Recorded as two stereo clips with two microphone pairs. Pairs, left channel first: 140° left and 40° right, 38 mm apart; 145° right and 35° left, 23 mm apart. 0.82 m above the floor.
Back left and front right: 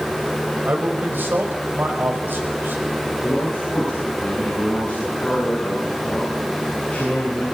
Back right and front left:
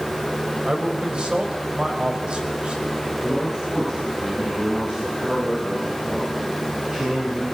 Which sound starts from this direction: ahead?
A man speaking, at 0.7 s.